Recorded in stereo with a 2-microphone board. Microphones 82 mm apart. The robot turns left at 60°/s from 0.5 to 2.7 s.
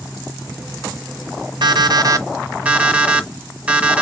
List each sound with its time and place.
1.6 s an alarm clock: 100° right, 1.2 m; by 4.0 s 165° right, 1.2 m